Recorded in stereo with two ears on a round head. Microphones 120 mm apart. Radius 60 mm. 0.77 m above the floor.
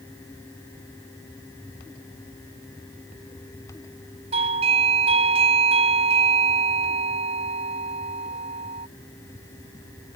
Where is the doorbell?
45° right (ahead or behind).